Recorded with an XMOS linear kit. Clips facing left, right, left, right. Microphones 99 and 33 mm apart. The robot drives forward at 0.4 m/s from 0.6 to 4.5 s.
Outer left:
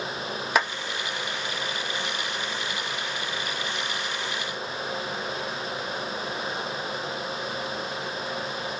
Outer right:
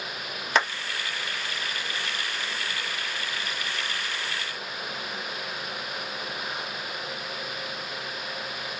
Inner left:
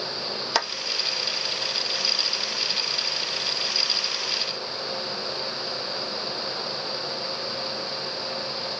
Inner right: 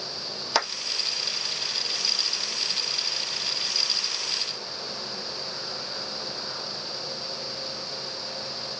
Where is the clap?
5° left (ahead or behind), 1.5 m.